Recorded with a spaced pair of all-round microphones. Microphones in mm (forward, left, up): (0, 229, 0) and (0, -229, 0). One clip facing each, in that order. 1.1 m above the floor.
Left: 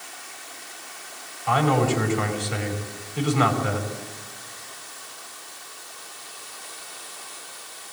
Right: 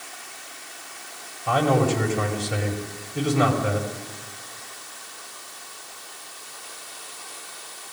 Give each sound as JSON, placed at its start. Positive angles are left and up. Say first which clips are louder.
{"t": 1.5, "sound": "a man speaking", "louder": "right 1 dB", "side_deg": -60, "distance_m": 5.5}